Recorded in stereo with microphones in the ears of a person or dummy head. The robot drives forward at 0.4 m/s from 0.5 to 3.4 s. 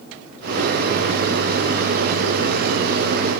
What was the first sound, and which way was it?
Only background noise.